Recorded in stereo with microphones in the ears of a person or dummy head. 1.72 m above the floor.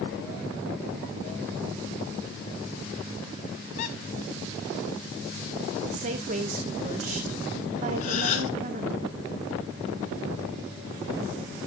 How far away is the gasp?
About 3 m.